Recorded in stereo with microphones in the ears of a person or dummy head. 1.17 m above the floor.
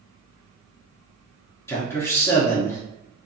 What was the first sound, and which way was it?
A man speaking, 10° left (ahead or behind).